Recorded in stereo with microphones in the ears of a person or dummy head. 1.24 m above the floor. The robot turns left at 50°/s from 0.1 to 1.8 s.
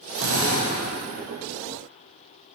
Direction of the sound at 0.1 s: 75° right (ahead or behind).